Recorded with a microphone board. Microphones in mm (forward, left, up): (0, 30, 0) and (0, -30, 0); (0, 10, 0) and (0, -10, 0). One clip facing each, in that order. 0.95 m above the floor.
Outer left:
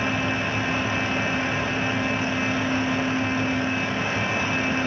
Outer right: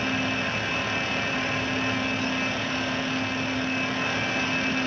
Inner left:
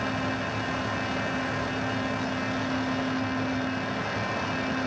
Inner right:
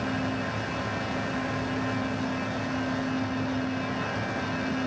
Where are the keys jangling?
I don't hear keys jangling.